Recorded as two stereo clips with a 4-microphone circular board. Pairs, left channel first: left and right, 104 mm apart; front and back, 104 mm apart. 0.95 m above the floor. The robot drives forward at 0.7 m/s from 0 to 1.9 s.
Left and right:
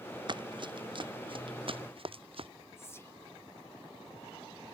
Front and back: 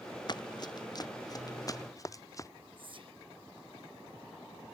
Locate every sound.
0.3 s running footsteps: 45° right; by 2.5 s 60° right
2.8 s whispering: 155° left